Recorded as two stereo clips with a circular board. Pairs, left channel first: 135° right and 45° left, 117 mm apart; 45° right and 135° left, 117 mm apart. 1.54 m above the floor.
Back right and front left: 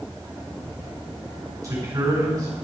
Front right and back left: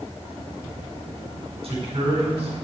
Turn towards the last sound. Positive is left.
turn(degrees=105)